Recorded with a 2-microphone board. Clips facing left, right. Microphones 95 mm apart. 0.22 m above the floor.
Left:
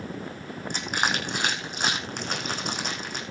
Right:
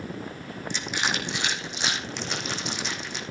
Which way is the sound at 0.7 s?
45° left (ahead or behind).